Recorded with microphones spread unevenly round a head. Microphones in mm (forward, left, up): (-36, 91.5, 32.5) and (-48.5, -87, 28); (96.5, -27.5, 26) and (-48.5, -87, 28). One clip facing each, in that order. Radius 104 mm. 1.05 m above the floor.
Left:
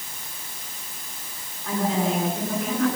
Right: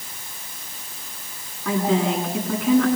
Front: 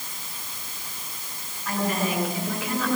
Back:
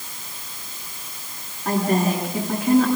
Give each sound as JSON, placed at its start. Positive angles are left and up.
{"t": 1.6, "sound": "a woman speaking", "azimuth_deg": -115, "distance_m": 9.5}